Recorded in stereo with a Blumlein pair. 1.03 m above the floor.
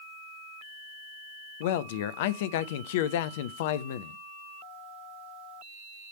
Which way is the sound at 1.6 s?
55° left.